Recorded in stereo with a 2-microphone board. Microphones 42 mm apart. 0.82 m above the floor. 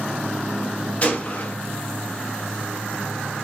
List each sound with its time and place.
1.0 s a gunshot: 35° left (ahead or behind), 1.1 m